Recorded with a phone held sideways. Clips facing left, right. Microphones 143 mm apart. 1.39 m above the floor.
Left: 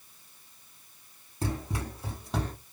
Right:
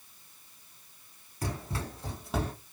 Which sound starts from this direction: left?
Running footsteps, at 1.4 s.